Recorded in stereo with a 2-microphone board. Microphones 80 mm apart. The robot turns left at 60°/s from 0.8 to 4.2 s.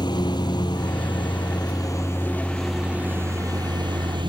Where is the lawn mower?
110° left; by 4.3 s 90° right.